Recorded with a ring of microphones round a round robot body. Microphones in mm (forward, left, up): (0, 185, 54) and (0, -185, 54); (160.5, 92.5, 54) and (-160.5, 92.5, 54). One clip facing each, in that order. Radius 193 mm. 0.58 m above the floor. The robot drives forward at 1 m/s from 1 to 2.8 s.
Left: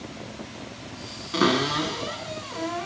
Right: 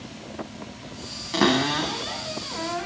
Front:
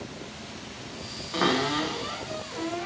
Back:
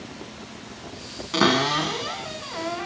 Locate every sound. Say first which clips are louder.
1.3 s a cupboard door: right 1 dB, back 4 dB; 160° right, 2.0 m; by 2.9 s 170° right, 3 m